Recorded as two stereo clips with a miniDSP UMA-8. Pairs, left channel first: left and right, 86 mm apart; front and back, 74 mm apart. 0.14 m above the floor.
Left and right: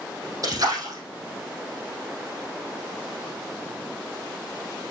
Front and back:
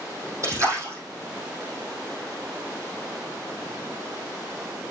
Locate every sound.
0.4 s a splash: 135° right, 4.5 m